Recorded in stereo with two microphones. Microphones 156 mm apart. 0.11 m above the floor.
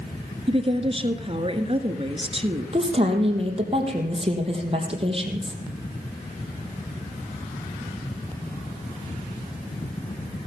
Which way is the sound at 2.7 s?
35° right (ahead or behind).